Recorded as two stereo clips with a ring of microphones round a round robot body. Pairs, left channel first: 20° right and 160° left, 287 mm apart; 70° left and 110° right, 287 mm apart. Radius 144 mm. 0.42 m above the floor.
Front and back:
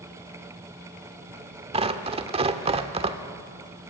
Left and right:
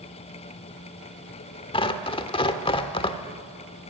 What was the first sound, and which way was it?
Tearing paper, 115° left.